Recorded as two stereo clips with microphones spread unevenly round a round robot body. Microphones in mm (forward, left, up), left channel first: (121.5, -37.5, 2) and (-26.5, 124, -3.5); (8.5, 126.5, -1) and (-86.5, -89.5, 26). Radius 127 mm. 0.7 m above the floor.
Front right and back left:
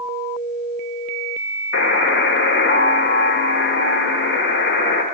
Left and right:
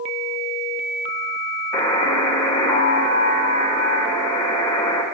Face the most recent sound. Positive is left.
turn(degrees=-10)